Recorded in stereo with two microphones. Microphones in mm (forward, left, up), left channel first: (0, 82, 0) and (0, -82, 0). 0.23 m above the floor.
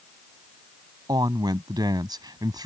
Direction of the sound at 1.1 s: 25° right (ahead or behind).